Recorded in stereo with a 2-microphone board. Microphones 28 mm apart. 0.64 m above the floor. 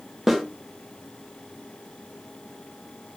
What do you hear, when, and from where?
0.3 s a snare drum: 10° right (ahead or behind), 0.6 m